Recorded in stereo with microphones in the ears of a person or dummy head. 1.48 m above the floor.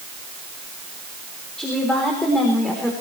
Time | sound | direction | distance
1.6 | a woman speaking | centre (ahead or behind) | 3.5 m